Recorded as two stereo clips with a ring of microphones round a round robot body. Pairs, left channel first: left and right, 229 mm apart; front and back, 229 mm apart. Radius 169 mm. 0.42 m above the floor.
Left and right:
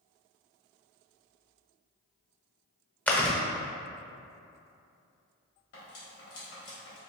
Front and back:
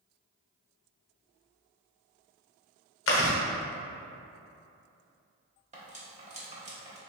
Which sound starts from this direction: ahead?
Chewing, at 3.1 s.